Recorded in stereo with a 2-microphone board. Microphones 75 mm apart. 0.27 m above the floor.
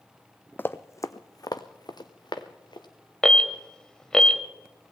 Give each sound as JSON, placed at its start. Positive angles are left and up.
{"t": 0.6, "sound": "running footsteps", "side_deg": 25, "distance_m": 0.6}
{"t": 3.2, "sound": "an alarm", "side_deg": 10, "distance_m": 0.9}